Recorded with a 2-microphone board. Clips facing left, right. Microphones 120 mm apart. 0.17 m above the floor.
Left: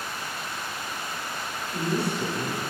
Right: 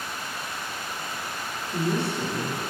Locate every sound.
1.7 s a woman speaking: 20° right (ahead or behind), 1.7 m; by 2.7 s 35° right (ahead or behind), 1.8 m